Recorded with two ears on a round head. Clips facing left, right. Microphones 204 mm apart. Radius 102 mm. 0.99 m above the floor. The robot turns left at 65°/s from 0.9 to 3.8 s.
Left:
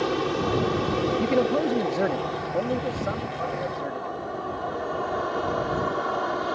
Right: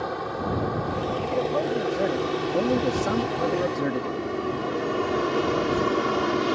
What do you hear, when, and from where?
0.0 s an aircraft: 45° left (ahead or behind); by 6.5 s 40° right (ahead or behind)
1.2 s a man speaking: 70° left; by 4.2 s 100° right